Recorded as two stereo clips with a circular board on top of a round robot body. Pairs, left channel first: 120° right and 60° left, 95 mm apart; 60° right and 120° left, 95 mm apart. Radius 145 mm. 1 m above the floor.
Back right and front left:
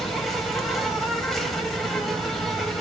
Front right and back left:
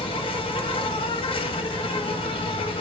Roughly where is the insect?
Ahead right.